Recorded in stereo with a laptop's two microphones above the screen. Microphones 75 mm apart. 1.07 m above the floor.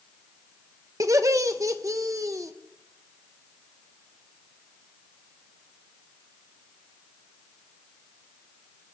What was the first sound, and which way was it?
Laughter, 45° right (ahead or behind).